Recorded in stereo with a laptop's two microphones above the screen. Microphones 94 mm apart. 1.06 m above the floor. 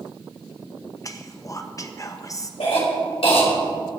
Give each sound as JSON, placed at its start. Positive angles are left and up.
{"t": 1.0, "sound": "whispering", "side_deg": 35, "distance_m": 1.3}
{"t": 2.6, "sound": "a cough", "side_deg": 80, "distance_m": 4.0}